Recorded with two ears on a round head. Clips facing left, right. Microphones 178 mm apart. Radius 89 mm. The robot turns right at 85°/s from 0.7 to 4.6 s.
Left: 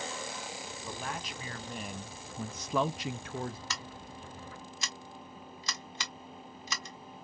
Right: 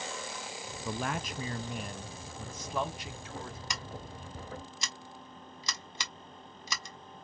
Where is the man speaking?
80° right, 0.6 m; by 3.6 s 150° left, 0.6 m.